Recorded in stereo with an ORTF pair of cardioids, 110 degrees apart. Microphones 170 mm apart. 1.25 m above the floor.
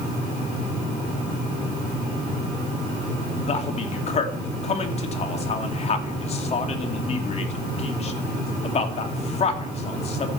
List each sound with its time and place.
3.5 s a man speaking: 40° left, 2.5 m